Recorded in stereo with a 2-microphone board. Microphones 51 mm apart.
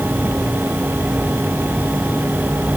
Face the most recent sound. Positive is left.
No sound to turn to.